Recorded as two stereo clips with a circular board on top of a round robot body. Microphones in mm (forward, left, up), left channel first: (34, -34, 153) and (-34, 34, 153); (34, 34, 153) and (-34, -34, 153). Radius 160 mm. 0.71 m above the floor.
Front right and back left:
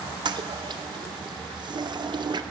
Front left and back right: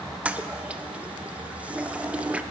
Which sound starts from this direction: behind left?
A toilet flushing, at 0.2 s.